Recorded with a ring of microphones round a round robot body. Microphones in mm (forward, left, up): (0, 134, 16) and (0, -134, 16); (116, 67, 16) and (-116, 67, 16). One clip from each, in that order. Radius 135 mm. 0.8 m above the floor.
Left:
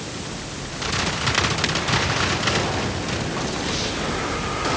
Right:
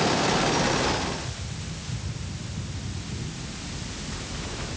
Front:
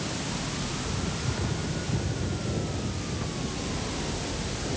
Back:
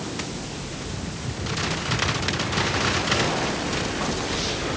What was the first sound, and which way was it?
Only background noise.